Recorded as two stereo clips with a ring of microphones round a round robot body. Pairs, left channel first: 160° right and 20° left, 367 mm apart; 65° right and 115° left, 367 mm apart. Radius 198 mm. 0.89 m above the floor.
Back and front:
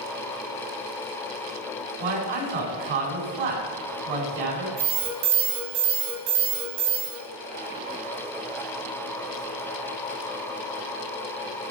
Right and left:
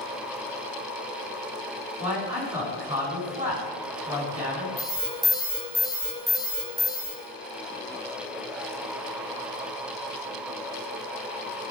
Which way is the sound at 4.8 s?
20° left.